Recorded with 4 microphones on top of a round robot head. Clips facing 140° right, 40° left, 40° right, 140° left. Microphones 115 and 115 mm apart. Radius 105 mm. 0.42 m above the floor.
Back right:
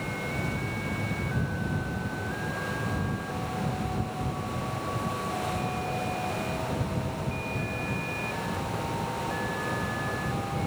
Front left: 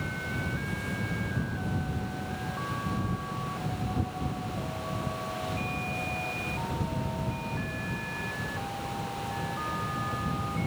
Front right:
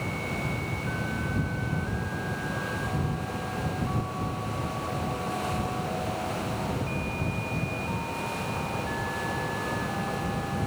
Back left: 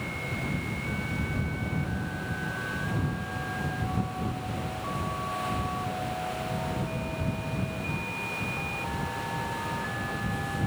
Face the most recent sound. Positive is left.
No sound to turn to.